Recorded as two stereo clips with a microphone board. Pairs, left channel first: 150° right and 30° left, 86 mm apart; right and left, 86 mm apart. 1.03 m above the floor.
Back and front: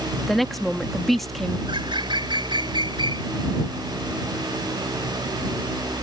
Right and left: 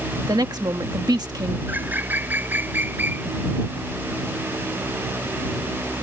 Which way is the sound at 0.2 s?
120° left.